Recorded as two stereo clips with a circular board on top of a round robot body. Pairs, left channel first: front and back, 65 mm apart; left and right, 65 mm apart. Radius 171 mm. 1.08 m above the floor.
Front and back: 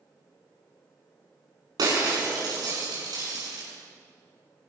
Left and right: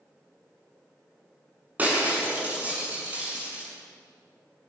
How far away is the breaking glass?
About 6.5 m.